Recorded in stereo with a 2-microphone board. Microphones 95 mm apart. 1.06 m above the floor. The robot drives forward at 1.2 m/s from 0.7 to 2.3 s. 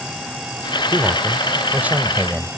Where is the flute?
No flute in this recording.